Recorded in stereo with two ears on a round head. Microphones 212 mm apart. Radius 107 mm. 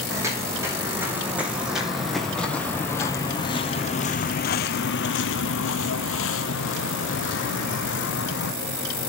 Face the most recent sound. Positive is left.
turn(degrees=55)  # may be behind; listen again after turning